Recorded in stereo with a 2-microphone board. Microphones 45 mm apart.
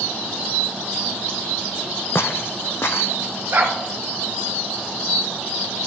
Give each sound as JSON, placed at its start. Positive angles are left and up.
{"t": 2.1, "sound": "footsteps", "side_deg": 65, "distance_m": 0.6}
{"t": 3.5, "sound": "a dog barking", "side_deg": -55, "distance_m": 1.6}